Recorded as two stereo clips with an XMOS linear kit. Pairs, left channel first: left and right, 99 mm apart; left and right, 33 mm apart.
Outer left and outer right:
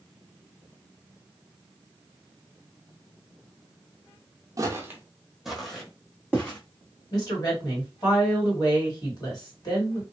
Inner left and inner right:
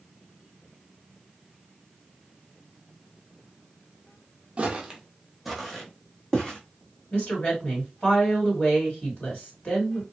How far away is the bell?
No bell in this recording.